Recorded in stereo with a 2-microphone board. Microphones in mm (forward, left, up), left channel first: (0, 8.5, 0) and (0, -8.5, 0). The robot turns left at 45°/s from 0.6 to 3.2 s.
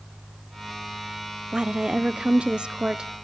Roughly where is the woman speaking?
Ahead right.